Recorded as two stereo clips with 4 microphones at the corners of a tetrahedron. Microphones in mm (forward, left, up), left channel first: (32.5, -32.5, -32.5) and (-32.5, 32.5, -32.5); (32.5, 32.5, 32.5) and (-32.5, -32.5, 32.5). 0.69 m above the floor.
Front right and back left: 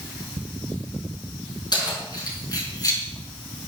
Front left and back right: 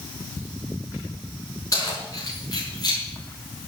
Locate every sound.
1.7 s keys jangling: 5° right, 5.5 m; by 3.0 s 5° left, 5 m